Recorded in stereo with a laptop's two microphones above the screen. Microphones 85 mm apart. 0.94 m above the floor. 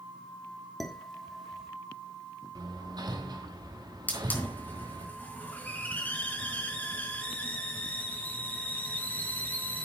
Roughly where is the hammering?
Right.